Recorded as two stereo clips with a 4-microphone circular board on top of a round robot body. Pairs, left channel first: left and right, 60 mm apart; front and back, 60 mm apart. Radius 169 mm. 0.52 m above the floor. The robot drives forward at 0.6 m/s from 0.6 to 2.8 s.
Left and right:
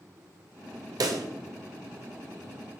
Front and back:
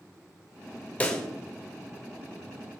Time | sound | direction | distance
1.0 | a pop | 70° right | 0.9 m